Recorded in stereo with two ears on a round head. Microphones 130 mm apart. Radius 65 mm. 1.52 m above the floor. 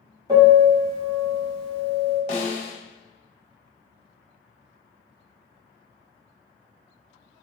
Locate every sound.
0.3 s a piano: 30° right (ahead or behind), 1.5 m
2.3 s a snare drum: 50° left (ahead or behind), 0.8 m